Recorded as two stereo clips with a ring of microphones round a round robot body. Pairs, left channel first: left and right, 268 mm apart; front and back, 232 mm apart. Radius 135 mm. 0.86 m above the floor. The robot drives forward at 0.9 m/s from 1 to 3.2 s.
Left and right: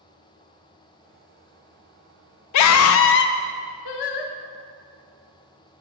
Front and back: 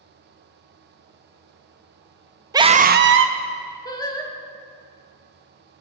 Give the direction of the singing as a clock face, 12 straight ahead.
9 o'clock.